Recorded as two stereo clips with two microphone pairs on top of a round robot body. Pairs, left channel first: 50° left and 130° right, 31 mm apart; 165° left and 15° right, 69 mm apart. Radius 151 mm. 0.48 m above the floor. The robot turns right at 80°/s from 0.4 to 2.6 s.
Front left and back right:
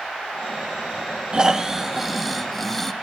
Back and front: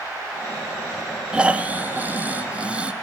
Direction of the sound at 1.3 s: 70° right.